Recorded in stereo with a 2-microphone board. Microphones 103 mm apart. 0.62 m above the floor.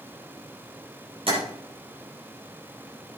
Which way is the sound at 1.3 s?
60° right (ahead or behind).